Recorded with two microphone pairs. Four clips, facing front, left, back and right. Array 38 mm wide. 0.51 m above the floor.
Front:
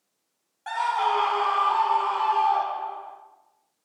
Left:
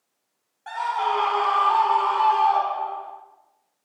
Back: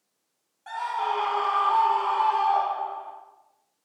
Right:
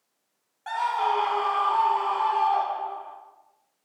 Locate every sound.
0.7 s a scream: 25° right, 0.9 m; by 3.1 s 110° left, 2.5 m